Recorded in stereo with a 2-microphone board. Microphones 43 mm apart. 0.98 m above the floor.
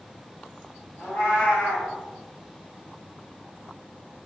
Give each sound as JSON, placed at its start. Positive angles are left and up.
{"t": 1.0, "sound": "a cat meowing", "side_deg": 55, "distance_m": 1.4}